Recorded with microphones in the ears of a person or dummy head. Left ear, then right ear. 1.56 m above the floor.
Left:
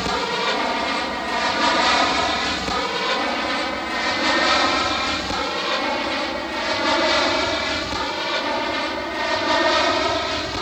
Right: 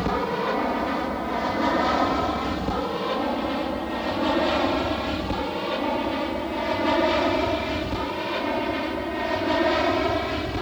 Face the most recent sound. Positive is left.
turn(degrees=50)  # may be behind; listen again after turning